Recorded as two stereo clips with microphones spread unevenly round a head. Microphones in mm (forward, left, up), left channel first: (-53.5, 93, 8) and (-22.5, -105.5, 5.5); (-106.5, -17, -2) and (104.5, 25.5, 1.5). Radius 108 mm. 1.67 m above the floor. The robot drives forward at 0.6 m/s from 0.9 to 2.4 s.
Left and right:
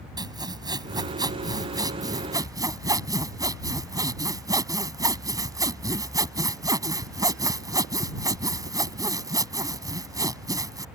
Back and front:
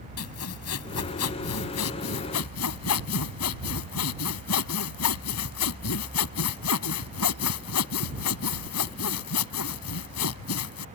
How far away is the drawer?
I don't hear a drawer.